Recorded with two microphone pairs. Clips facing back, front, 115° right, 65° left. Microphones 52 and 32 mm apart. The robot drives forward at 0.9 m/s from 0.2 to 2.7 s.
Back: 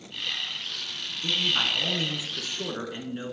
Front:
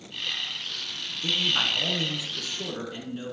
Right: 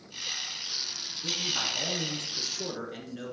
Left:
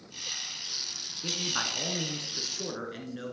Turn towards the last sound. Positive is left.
turn(degrees=140)